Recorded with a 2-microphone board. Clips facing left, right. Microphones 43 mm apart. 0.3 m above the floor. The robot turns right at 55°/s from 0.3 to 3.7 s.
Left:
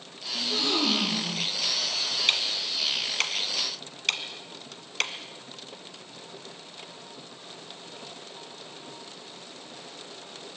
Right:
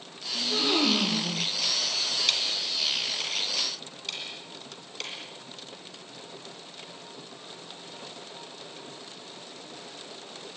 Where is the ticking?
30° left (ahead or behind), 2.5 m; by 5.1 s 65° left (ahead or behind), 2.5 m.